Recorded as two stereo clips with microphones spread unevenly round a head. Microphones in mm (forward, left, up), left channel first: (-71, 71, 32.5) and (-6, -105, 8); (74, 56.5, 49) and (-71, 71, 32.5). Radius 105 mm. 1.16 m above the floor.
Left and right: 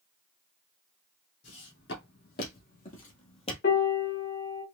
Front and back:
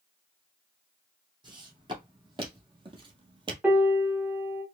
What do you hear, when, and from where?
1.4 s footsteps: 115° left, 2.5 m; by 3.5 s 130° left, 1.4 m
3.6 s a piano: 90° left, 1.4 m